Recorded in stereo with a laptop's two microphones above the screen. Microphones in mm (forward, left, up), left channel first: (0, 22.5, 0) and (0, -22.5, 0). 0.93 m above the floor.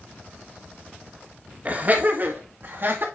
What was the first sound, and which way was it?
Laughter, 35° right (ahead or behind).